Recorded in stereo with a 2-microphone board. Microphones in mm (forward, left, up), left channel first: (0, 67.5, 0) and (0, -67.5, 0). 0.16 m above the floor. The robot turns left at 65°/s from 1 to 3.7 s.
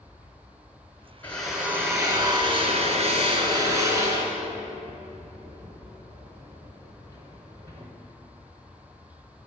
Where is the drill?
15° left (ahead or behind), 1.3 m; by 7.9 s 25° right (ahead or behind), 1.3 m.